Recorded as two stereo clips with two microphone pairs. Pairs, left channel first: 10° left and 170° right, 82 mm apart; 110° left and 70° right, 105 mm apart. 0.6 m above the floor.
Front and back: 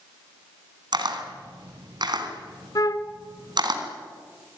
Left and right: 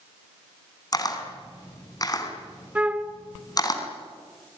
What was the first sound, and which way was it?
A camera shutter, 165° left.